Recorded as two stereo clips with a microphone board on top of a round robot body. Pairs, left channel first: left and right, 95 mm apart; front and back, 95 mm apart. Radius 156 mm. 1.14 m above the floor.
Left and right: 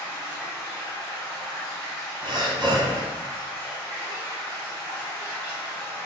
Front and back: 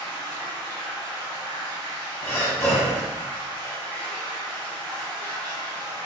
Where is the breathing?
60° right, 1.0 m.